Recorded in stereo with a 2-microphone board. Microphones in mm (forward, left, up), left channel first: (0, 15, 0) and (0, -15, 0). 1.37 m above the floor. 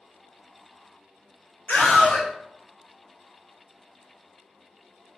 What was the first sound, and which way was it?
A scream, 60° left (ahead or behind).